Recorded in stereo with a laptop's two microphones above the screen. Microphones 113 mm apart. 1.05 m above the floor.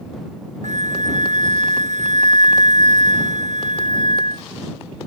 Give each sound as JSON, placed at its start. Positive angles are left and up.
{"t": 0.6, "sound": "a flute", "side_deg": -90}